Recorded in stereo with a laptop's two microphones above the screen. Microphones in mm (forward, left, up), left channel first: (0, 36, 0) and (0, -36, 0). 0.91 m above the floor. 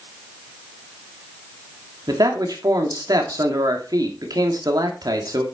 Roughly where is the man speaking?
Right.